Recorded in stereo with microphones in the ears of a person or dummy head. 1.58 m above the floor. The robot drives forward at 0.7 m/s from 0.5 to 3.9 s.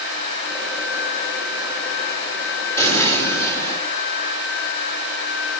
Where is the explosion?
20° left (ahead or behind), 4.5 m.